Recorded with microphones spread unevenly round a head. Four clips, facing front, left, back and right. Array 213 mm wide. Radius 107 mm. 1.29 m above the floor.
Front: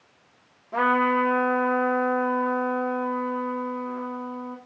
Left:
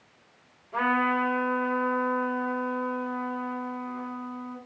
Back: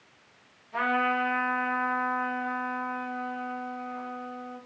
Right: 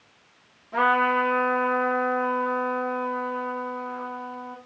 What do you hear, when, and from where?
0.7 s a trumpet: 15° right, 2.5 m